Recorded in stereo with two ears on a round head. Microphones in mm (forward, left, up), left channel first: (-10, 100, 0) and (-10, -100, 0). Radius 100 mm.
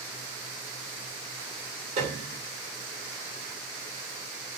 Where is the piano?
30° right (ahead or behind), 0.8 m.